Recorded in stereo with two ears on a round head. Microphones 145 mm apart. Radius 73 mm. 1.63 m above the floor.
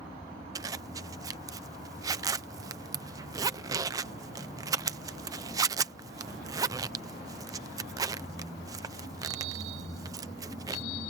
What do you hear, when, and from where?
0.6 s a zipper: 20° right (ahead or behind)